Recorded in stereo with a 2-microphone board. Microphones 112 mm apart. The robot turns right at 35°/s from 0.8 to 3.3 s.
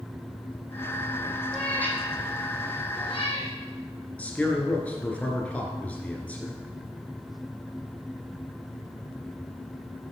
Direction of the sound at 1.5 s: 5° left (ahead or behind).